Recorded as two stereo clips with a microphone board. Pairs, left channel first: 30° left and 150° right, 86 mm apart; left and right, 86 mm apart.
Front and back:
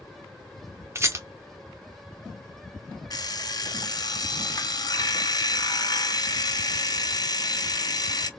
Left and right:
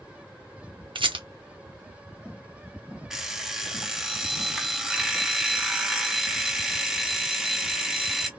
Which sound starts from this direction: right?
A rattle, at 0.9 s.